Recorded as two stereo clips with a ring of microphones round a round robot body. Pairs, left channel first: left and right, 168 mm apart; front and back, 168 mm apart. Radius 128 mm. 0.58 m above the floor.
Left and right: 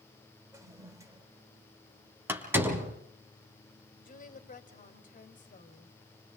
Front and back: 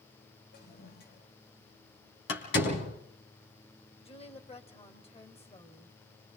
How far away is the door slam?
About 4.5 m.